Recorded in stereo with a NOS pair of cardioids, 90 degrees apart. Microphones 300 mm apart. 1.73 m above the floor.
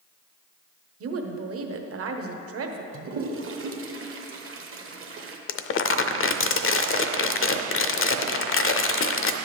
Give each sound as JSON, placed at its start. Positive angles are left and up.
{"t": 1.0, "sound": "a woman speaking", "azimuth_deg": -50, "distance_m": 1.0}
{"t": 2.9, "sound": "a toilet flushing", "azimuth_deg": -45, "distance_m": 1.0}
{"t": 5.5, "sound": "crumpling", "azimuth_deg": 45, "distance_m": 0.6}